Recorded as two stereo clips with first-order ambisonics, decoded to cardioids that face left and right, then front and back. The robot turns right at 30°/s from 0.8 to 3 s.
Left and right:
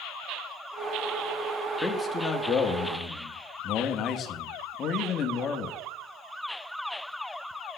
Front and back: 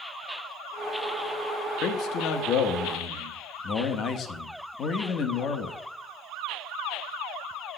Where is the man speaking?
5° left, 0.9 m; by 5.8 s 45° left, 0.9 m.